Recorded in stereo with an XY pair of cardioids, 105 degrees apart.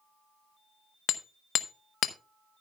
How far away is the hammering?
About 0.9 m.